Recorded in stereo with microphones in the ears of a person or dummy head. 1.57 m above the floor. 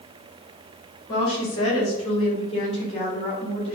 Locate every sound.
1.1 s a woman speaking: 30° left (ahead or behind), 3.5 m; by 3.8 s 35° left (ahead or behind), 5 m